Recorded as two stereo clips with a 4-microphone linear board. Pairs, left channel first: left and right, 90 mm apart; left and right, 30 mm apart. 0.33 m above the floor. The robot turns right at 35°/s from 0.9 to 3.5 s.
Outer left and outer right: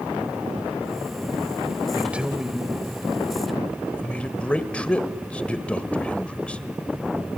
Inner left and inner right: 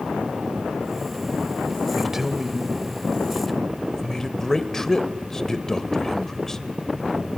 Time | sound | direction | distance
1.9 | a man speaking | 15° right (ahead or behind) | 1.6 m